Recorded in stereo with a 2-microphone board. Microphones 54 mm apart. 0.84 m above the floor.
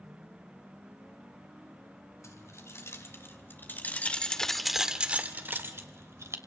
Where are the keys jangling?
60° left (ahead or behind), 4 m; by 6.4 s 60° right (ahead or behind), 3 m.